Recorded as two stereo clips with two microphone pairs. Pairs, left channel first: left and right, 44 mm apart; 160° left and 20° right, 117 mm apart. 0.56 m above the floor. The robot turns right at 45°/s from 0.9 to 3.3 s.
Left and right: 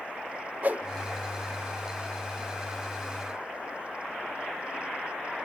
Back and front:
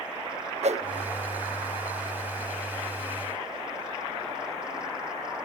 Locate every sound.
0.6 s a whoosh: 40° right, 0.5 m